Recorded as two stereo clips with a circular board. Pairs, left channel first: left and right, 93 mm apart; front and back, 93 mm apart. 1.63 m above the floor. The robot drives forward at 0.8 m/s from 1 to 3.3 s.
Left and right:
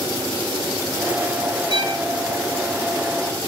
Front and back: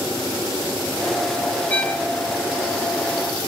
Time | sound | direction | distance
1.7 | a violin | 70° right | 2.5 m